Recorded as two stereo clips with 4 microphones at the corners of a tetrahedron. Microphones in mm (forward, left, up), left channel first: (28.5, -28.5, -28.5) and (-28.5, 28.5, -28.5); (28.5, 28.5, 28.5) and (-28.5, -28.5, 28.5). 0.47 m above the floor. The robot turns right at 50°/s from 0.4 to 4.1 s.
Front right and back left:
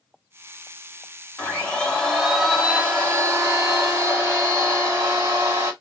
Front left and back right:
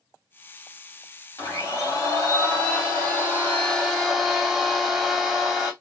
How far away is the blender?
About 1.6 m.